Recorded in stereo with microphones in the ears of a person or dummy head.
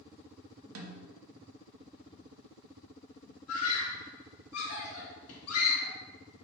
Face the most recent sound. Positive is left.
turn(degrees=80)